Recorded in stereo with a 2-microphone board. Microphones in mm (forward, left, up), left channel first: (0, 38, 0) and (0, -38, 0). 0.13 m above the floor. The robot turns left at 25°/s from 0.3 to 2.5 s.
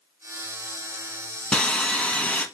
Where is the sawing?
10° left (ahead or behind), 0.9 m; by 2.5 s 20° left (ahead or behind), 0.9 m.